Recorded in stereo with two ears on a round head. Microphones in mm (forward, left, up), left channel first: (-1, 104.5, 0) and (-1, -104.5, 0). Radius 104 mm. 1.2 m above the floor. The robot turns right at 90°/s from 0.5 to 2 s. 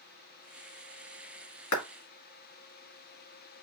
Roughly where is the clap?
Left.